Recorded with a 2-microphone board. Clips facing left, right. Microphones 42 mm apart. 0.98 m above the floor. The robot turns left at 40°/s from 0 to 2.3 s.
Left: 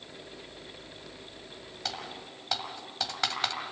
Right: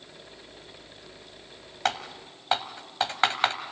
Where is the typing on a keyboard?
50° right (ahead or behind), 1.6 m; by 3.5 s 35° right (ahead or behind), 1.6 m.